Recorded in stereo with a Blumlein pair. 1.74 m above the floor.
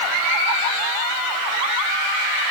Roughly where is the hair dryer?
No hair dryer in this recording.